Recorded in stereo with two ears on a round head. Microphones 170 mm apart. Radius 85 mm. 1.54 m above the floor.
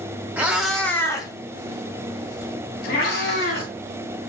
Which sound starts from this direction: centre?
A cat meowing, at 0.4 s.